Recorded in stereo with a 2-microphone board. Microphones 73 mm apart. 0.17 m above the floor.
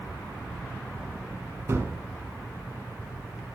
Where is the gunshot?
35° right (ahead or behind), 0.9 m.